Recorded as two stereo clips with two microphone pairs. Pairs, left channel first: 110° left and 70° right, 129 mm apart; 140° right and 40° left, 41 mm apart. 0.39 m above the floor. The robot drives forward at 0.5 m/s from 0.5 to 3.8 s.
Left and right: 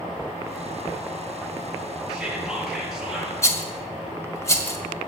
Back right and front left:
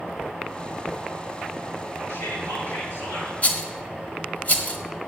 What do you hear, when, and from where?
2.1 s whispering: 155° right, 6.5 m
3.4 s a rattle: 175° left, 1.5 m